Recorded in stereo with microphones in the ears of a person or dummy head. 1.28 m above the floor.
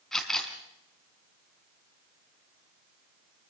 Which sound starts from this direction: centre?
A camera shutter, at 0.1 s.